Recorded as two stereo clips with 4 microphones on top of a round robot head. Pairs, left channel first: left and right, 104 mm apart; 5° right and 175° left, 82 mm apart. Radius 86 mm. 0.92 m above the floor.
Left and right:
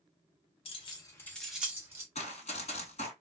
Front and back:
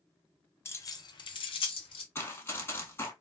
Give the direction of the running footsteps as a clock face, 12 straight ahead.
10 o'clock.